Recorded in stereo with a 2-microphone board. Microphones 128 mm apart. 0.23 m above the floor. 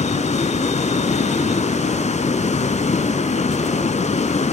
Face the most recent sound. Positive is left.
turn(degrees=65)  # may be behind; listen again after turning